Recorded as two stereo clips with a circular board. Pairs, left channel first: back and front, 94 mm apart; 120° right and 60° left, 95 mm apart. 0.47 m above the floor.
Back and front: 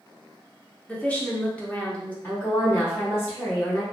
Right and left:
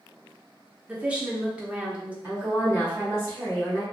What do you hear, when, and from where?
0.9 s a woman speaking: 120° left, 0.7 m
2.2 s a woman speaking: 120° left, 1.4 m